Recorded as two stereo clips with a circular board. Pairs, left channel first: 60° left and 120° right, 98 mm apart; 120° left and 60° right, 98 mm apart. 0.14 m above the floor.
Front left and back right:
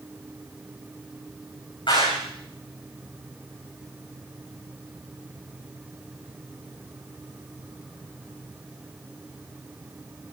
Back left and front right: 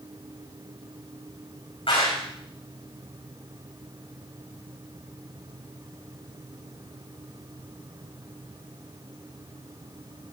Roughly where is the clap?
Left.